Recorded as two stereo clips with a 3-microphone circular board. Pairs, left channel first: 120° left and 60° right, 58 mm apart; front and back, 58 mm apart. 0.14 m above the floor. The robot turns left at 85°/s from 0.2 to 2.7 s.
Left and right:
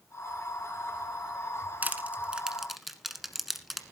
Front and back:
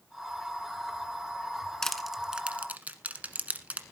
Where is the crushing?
70° right, 1.2 m; by 3.8 s 145° right, 1.2 m.